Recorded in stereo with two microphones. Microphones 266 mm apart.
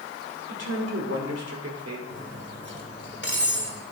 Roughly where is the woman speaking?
Right.